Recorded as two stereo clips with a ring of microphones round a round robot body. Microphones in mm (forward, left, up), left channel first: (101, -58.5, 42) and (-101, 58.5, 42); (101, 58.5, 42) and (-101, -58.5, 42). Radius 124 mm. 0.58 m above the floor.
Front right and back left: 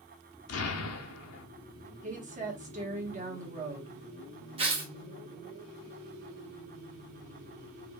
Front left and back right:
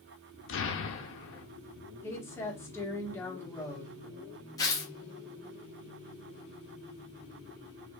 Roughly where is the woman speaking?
Left.